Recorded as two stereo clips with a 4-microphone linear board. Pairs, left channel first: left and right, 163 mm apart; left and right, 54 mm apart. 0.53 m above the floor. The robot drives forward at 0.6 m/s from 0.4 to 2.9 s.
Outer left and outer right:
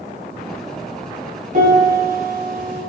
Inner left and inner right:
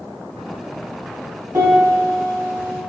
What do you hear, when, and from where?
1.5 s a piano: 65° right (ahead or behind), 1.6 m; by 2.8 s 85° right, 1.4 m